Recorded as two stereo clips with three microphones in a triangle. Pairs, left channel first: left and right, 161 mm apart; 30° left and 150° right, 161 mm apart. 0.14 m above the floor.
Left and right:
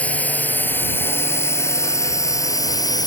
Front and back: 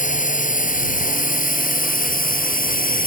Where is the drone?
10° left; by 3.1 s 25° left.